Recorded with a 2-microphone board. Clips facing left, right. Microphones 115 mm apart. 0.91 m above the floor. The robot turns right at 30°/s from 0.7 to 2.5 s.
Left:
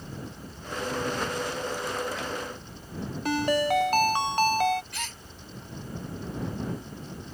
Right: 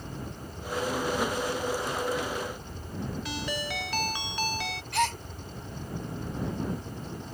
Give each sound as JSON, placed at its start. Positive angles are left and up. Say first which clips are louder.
{"t": 0.0, "sound": "a helicopter", "louder": "right 1 dB", "azimuth_deg": -145}
{"t": 3.2, "sound": "a ringtone", "louder": "left 10 dB", "side_deg": 45}
{"t": 4.9, "sound": "a gasp", "louder": "right 12 dB", "side_deg": -60}